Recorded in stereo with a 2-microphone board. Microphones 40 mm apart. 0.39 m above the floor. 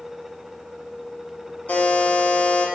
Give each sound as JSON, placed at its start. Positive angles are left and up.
{"t": 1.7, "sound": "a buzzer", "side_deg": 40, "distance_m": 0.6}